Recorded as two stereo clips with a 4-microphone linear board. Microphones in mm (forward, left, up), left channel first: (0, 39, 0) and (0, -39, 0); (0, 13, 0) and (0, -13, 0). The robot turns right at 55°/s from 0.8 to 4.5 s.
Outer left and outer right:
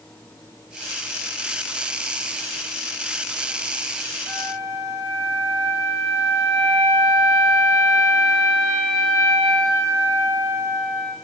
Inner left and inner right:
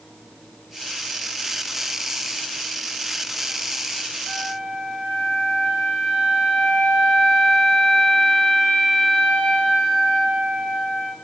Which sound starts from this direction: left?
A flute, at 4.3 s.